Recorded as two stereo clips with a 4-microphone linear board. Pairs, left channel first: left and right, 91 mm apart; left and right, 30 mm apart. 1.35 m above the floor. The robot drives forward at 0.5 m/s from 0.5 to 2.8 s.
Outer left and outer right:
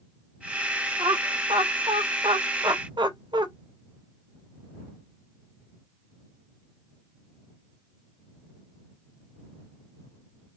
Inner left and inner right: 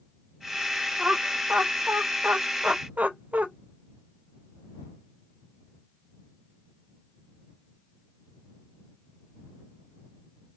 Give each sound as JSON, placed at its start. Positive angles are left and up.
{"t": 1.0, "sound": "laughter", "side_deg": -70, "distance_m": 1.1}